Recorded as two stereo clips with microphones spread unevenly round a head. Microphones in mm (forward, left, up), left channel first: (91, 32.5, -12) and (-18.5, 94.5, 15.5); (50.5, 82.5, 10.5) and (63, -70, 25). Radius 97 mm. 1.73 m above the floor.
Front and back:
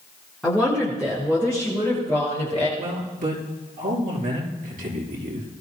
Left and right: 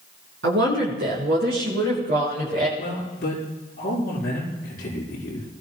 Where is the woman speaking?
120° right, 4 m; by 2.7 s 135° right, 7.5 m.